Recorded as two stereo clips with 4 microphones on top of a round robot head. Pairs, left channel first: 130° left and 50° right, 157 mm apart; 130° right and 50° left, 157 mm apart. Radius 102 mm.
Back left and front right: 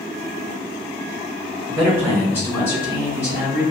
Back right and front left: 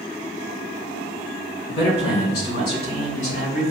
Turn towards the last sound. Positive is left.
turn(degrees=-165)